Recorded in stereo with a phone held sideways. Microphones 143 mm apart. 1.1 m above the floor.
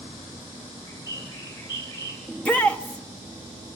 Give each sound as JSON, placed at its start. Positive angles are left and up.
{"t": 0.9, "sound": "a bird", "side_deg": 30, "distance_m": 7.5}
{"t": 2.3, "sound": "a shout", "side_deg": 10, "distance_m": 2.0}